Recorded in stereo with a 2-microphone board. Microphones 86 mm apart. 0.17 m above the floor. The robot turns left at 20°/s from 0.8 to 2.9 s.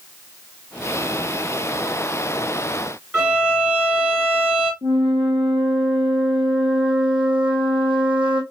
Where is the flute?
75° right (ahead or behind), 1.3 m.